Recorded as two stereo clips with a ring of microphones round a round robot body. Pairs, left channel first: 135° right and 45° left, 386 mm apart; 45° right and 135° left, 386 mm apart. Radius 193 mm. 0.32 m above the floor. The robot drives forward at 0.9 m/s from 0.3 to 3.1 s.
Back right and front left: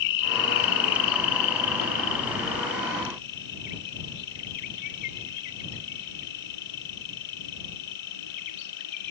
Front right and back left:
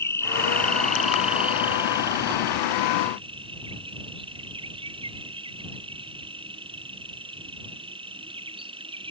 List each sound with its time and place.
0.0 s an insect: 130° right; by 9.1 s 150° right